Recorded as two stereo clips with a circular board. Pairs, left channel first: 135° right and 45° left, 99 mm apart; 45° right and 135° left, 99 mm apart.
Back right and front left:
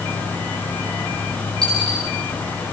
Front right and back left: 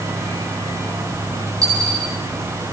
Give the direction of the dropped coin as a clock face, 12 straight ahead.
6 o'clock.